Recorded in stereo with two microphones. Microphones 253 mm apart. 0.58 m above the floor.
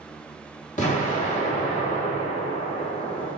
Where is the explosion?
30° left (ahead or behind), 1.2 m.